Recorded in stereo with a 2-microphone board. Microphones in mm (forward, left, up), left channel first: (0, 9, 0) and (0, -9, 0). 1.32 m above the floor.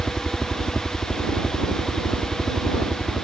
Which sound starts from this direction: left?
A helicopter, at 0.0 s.